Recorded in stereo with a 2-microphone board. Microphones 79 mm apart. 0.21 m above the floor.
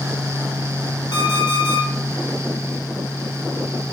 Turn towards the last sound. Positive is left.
turn(degrees=70)  # may be behind; listen again after turning